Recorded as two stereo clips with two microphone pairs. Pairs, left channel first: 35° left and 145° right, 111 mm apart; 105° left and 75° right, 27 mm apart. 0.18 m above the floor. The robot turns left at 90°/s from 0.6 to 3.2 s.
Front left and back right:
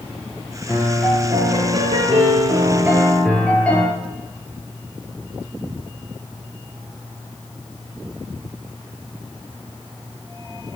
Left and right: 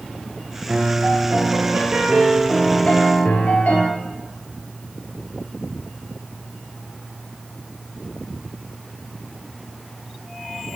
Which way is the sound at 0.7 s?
20° right.